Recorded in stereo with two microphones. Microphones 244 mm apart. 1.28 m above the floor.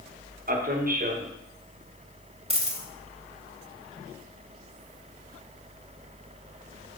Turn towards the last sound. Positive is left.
turn(degrees=-25)  # may be behind; listen again after turning